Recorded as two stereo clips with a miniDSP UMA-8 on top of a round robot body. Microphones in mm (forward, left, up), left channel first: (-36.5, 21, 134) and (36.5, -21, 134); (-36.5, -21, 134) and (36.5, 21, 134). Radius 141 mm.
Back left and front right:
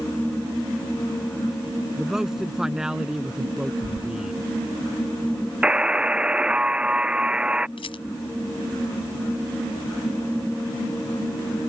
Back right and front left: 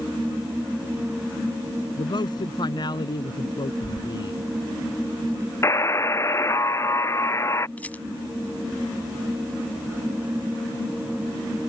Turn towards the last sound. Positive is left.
turn(degrees=135)